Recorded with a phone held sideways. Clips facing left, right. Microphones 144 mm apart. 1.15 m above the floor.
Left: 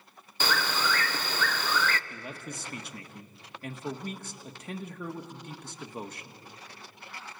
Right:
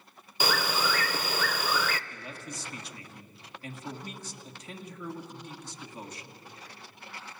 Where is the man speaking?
55° left (ahead or behind), 1.8 m.